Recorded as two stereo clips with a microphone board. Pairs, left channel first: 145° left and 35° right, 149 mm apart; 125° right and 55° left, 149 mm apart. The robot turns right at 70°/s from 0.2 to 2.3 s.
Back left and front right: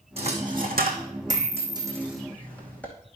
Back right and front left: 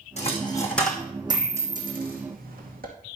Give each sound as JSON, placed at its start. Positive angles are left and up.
{"t": 0.2, "sound": "a dropped coin", "azimuth_deg": -85, "distance_m": 2.5}